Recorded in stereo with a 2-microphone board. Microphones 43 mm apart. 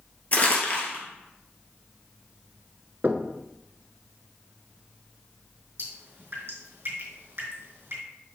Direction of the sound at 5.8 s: 55° right (ahead or behind).